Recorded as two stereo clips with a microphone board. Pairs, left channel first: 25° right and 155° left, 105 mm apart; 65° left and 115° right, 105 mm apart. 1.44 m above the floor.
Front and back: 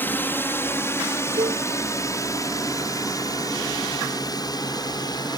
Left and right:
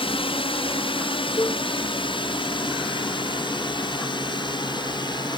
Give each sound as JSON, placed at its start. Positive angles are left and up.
{"t": 0.0, "sound": "a drone", "azimuth_deg": 45}
{"t": 1.4, "sound": "a cowbell", "azimuth_deg": 125}